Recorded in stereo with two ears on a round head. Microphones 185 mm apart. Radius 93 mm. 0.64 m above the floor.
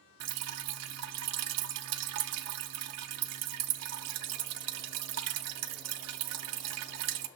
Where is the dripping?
80° right, 0.5 m.